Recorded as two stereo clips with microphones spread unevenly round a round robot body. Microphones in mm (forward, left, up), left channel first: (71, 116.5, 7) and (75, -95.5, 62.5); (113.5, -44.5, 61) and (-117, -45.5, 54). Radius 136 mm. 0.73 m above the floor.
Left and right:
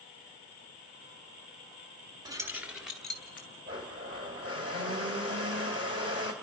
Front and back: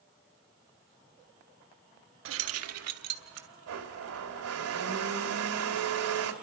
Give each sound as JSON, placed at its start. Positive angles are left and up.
{"t": 2.2, "sound": "keys jangling", "azimuth_deg": -170, "distance_m": 0.7}
{"t": 3.7, "sound": "a blender", "azimuth_deg": -160, "distance_m": 2.0}